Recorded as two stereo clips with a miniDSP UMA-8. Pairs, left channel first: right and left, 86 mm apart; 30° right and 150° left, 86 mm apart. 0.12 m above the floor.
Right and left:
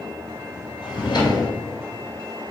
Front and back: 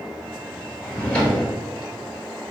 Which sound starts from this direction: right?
A drawer, at 0.8 s.